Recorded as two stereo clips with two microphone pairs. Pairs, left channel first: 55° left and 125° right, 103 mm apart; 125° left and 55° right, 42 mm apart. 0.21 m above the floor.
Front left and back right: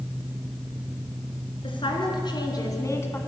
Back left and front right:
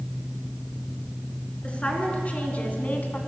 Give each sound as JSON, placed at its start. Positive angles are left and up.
{"t": 1.6, "sound": "a woman speaking", "azimuth_deg": 70, "distance_m": 3.0}